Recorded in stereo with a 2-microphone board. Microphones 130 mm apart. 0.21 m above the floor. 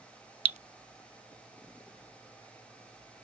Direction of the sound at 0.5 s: 55° right (ahead or behind).